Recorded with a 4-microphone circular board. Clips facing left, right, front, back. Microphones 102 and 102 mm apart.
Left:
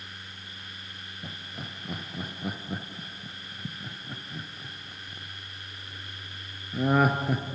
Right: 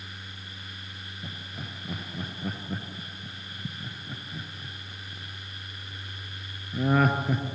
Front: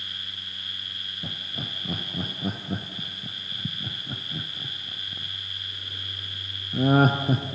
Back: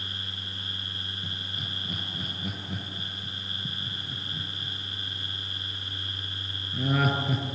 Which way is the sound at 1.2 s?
10° left.